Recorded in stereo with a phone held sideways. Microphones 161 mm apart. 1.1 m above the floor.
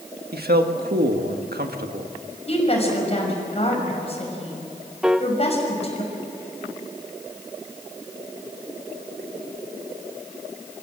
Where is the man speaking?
75° right (ahead or behind), 1.7 m.